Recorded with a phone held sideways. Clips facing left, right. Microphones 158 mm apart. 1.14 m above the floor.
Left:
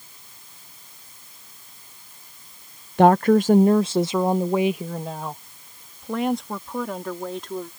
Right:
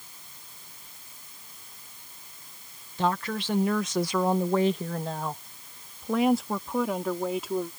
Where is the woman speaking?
60° left (ahead or behind); by 7.7 s 10° right (ahead or behind).